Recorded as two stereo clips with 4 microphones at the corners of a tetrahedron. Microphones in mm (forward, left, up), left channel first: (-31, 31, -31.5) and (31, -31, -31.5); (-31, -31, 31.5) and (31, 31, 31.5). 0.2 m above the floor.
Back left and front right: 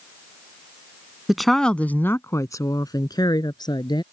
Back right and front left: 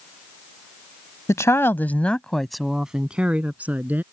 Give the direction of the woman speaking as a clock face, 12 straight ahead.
4 o'clock.